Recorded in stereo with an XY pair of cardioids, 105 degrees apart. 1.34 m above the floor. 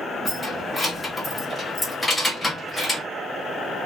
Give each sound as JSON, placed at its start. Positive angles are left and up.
{"t": 0.2, "sound": "keys jangling", "azimuth_deg": 15, "distance_m": 1.1}